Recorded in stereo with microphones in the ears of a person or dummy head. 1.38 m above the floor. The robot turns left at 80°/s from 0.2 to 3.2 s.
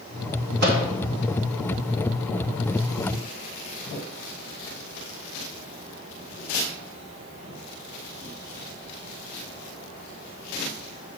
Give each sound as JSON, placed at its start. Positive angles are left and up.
{"t": 0.6, "sound": "a microwave", "side_deg": -45, "distance_m": 1.2}